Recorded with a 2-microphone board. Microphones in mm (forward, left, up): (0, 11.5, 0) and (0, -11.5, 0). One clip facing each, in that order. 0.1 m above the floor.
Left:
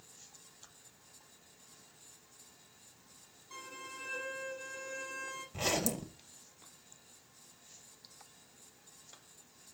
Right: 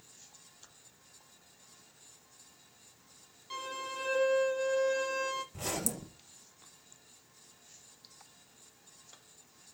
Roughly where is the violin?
Right.